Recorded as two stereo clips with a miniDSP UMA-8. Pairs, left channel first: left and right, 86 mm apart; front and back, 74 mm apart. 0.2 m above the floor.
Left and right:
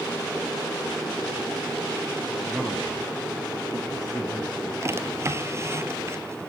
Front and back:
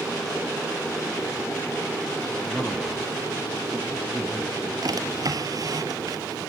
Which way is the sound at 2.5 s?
20° right.